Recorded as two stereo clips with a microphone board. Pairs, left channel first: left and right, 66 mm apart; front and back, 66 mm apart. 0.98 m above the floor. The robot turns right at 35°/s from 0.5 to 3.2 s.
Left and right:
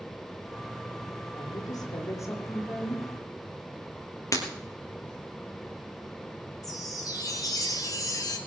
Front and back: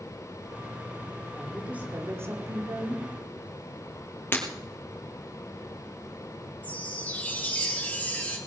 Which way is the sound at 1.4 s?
100° left.